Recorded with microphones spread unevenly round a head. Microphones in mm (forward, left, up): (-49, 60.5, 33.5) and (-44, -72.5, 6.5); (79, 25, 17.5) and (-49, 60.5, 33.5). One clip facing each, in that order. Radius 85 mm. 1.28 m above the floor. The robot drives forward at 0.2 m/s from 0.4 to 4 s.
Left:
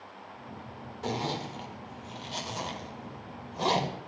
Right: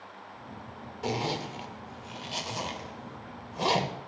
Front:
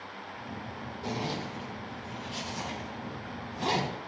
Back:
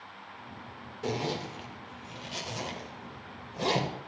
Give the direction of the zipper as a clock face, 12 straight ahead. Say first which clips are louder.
Right 1 dB, back 2 dB; 6 o'clock.